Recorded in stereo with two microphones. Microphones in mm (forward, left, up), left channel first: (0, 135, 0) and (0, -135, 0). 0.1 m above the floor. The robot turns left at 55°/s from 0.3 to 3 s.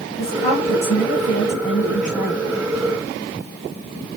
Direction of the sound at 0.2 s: 155° left.